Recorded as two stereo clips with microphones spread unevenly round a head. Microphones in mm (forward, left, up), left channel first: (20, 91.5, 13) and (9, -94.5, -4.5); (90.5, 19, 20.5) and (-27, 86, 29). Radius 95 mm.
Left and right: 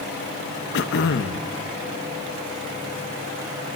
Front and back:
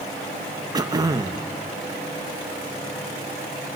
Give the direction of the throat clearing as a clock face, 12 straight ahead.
9 o'clock.